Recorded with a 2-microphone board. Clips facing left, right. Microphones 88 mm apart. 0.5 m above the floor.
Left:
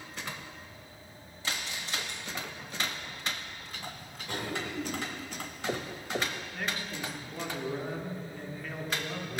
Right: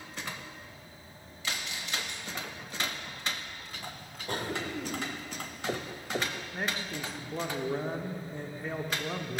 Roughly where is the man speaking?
Right.